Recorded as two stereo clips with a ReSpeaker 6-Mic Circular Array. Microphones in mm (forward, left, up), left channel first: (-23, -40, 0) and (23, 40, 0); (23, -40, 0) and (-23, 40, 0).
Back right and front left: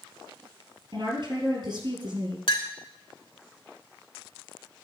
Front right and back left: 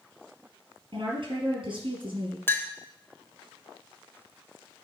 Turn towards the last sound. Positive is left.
turn(degrees=-125)